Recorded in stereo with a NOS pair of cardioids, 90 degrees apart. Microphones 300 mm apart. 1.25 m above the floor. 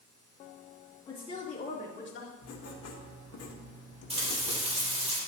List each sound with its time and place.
1.1 s a woman speaking: 15° left, 3 m; by 2.3 s 45° left, 2.5 m
2.4 s writing: 55° left, 1.3 m
4.1 s frying: 20° right, 3 m